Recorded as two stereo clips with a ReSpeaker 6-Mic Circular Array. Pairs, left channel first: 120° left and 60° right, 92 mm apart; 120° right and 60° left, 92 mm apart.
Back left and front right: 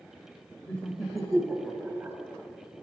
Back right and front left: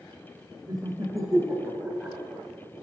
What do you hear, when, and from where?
0.7 s laughter: 45° left, 1.4 m; by 2.2 s 10° right, 1.2 m